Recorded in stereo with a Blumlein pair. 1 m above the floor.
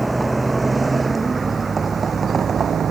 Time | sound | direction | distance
0.0 | a vehicle | 5° right | ?